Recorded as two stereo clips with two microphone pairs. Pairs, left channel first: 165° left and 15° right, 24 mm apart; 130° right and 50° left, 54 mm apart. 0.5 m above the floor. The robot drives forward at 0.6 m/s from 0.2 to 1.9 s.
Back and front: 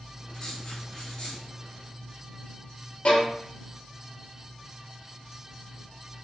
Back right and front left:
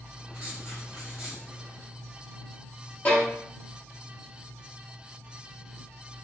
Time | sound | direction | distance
0.3 | writing | 110° left | 1.5 m
3.0 | a violin | 175° left | 0.9 m